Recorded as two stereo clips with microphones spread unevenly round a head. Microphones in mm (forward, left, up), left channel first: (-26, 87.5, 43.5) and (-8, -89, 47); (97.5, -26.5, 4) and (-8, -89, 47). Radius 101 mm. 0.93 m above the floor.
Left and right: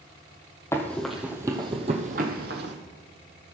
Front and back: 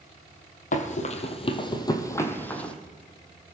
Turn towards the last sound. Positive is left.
turn(degrees=-65)